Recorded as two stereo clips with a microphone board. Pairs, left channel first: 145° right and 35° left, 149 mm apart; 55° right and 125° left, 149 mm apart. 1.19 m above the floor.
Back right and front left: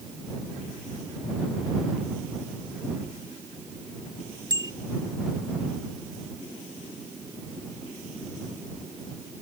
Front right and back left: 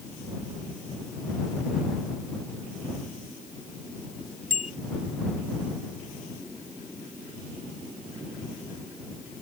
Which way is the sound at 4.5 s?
100° left.